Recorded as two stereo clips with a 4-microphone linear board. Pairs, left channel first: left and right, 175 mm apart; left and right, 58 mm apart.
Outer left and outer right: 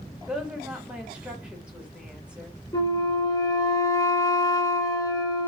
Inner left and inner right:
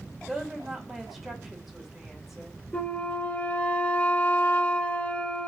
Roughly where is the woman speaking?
Centre.